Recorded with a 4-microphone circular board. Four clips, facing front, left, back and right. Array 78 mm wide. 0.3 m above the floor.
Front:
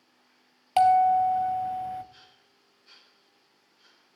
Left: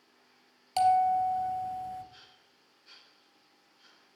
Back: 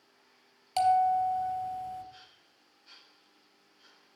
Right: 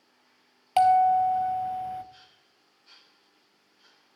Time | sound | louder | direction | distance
0.8 | a bell | right 5 dB, front 5 dB | 45° right | 0.6 m